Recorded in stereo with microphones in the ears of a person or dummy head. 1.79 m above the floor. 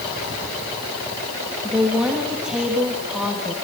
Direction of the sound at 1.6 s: Centre (ahead or behind).